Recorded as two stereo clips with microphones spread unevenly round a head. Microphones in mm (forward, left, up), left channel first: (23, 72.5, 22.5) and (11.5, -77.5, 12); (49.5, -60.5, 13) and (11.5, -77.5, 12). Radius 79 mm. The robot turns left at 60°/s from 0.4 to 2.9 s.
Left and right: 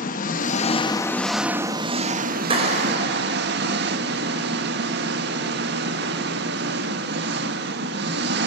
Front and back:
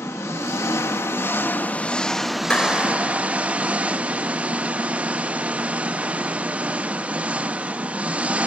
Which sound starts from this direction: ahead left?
An engine running, at 0.0 s.